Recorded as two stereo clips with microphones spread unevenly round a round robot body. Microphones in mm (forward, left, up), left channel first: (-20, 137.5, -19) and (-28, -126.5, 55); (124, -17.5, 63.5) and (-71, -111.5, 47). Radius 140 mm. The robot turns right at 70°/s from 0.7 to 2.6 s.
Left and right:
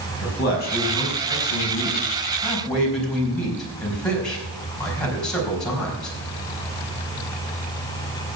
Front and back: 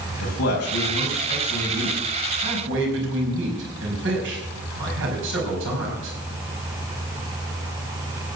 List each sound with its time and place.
0.2 s a man speaking: 40° left, 5 m; by 6.2 s 170° left, 5 m